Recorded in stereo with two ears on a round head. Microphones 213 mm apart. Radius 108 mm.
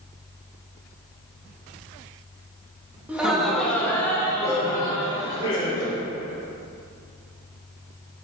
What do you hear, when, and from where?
3.1 s laughter: 5° right (ahead or behind), 1.5 m; by 6.0 s 25° left (ahead or behind), 3.5 m